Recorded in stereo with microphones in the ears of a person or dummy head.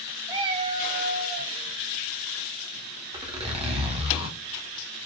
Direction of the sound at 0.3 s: 15° right (ahead or behind).